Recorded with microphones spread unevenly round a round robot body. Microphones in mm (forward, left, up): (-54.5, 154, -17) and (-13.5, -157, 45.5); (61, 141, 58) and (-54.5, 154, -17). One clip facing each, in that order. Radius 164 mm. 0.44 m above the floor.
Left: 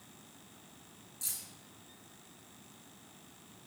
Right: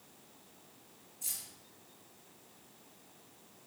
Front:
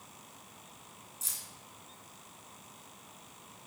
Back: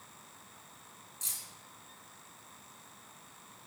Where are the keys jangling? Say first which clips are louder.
Left 1 dB, front 1 dB; 105° left, 4.5 m.